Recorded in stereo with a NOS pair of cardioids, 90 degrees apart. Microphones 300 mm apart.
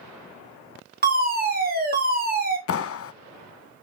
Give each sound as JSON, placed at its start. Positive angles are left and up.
{"t": 1.0, "sound": "a fire alarm", "azimuth_deg": -30, "distance_m": 3.5}
{"t": 2.7, "sound": "a clap", "azimuth_deg": 50, "distance_m": 1.0}